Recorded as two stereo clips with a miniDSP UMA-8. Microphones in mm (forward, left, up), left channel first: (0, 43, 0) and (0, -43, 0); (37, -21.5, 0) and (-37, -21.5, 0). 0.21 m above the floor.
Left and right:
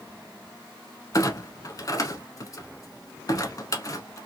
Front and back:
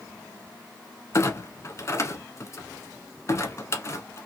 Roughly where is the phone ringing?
No phone ringing in this recording.